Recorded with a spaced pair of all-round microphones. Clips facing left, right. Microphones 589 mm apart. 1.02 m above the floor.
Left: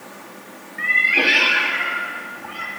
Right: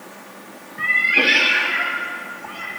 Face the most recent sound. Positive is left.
turn(degrees=-10)  # may be behind; listen again after turning